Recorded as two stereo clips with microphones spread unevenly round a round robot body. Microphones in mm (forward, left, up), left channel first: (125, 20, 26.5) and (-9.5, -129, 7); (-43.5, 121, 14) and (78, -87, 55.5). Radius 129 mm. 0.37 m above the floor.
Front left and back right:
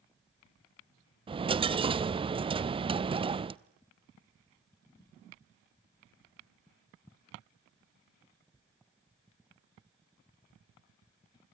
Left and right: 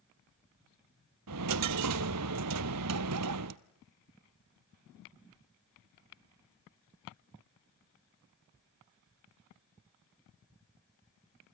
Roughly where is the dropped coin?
Ahead right.